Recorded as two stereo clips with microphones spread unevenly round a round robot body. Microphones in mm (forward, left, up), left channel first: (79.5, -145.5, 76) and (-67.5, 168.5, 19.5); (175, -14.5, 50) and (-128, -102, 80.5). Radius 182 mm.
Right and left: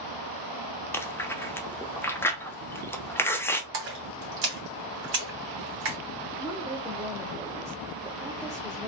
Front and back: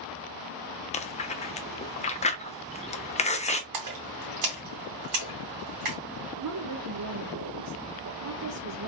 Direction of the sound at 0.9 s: 30° left.